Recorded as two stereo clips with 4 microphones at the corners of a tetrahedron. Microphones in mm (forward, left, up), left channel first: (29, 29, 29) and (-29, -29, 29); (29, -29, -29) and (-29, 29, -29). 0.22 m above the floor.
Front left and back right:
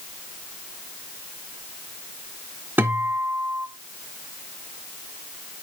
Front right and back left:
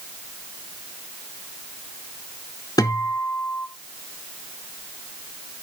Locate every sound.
2.8 s a guitar: 70° right, 1.2 m